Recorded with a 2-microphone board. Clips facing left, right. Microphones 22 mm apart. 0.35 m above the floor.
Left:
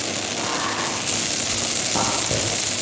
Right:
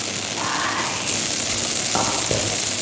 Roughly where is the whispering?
Right.